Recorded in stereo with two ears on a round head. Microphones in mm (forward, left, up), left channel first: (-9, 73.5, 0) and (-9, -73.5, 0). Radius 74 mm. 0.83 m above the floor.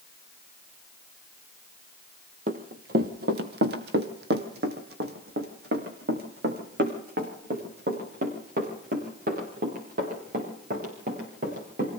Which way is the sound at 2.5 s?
50° right (ahead or behind).